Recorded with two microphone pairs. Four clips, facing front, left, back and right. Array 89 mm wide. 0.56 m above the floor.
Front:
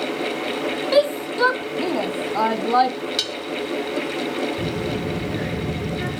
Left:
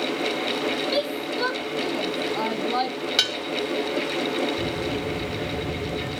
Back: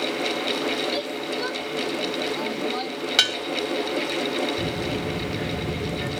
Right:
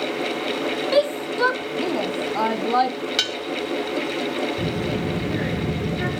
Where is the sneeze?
No sneeze in this recording.